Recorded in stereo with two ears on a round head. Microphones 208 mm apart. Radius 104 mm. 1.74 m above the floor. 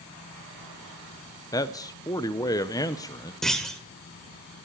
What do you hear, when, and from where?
1.5 s a man speaking: 15° left (ahead or behind), 0.8 m
3.4 s a clunk: centre (ahead or behind), 1.5 m